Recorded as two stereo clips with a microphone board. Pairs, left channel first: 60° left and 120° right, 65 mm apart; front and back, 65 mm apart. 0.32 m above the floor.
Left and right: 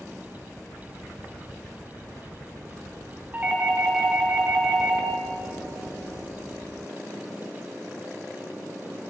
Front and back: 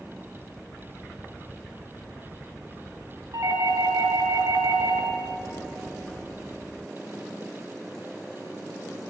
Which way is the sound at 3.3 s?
175° left.